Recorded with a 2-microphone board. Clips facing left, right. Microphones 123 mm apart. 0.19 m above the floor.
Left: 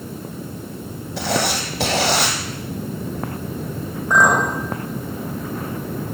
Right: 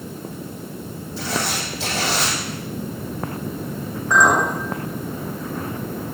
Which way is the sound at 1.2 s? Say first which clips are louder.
Left 4 dB; 80° left.